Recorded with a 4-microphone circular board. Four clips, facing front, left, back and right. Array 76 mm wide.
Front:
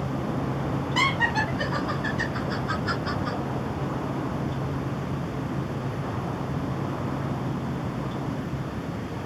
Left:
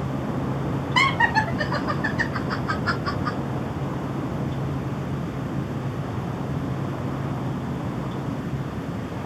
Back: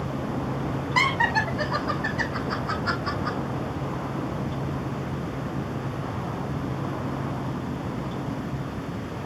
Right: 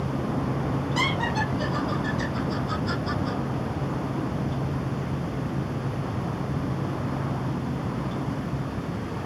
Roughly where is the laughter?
Behind left.